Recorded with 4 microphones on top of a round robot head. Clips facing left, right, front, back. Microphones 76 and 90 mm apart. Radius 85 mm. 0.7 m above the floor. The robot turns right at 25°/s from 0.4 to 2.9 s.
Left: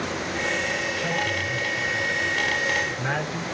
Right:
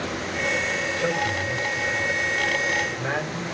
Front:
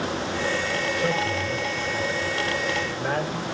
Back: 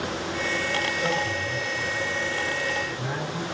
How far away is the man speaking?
About 3.5 m.